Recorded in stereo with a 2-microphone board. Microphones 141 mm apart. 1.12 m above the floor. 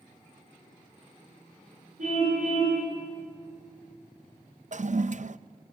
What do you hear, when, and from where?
2.0 s a car horn: 60° right (ahead or behind), 10 m
4.7 s a toilet flushing: 55° right (ahead or behind), 0.5 m